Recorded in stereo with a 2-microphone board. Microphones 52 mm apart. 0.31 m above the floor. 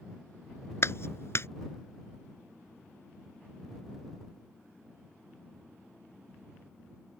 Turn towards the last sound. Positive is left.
turn(degrees=55)  # may be behind; listen again after turning